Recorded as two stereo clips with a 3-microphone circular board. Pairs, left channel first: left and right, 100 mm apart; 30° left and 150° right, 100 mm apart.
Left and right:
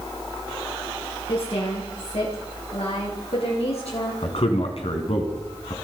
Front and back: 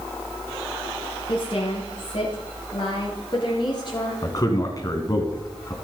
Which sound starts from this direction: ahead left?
A woman speaking, at 1.3 s.